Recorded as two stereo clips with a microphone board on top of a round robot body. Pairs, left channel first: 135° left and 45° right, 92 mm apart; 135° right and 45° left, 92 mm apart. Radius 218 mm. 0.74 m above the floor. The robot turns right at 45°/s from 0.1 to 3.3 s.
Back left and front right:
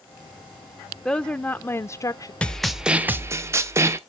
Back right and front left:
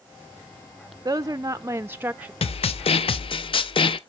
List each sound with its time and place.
1.1 s a woman speaking: 60° left, 0.6 m; by 2.3 s 115° left, 0.6 m
2.4 s a snare drum: 145° right, 0.5 m; by 4.0 s 105° right, 0.5 m